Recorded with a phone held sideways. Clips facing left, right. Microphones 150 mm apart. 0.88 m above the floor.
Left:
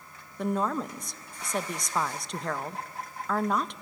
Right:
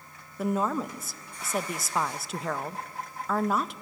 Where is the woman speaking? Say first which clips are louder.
Right 1 dB; 5° right (ahead or behind), 0.6 m.